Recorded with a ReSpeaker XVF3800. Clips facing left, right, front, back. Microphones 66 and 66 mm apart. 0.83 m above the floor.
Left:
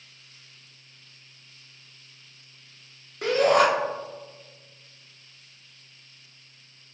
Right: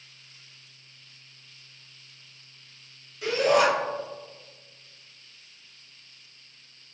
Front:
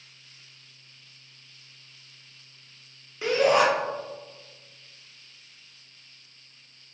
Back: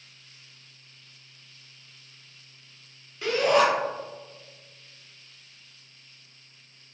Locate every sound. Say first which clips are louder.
3.2 s a shout: left 2 dB, front 1 dB; 70° left, 0.8 m